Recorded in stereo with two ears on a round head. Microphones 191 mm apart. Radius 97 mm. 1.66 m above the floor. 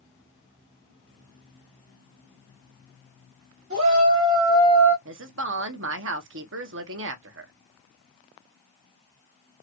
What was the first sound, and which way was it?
A shout, 55° right (ahead or behind).